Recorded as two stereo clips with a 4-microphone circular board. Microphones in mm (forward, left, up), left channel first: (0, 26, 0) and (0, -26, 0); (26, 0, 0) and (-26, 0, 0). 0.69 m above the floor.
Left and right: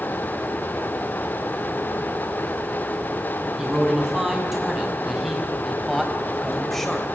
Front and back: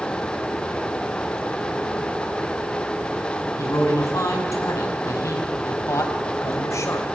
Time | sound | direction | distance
3.6 | a man speaking | 10° right | 6 m